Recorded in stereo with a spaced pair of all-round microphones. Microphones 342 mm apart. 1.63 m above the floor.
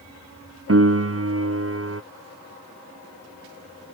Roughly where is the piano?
Right.